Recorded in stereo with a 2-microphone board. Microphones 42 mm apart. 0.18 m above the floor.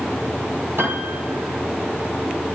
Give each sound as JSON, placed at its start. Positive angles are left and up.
{"t": 0.8, "sound": "a piano", "side_deg": -65, "distance_m": 2.0}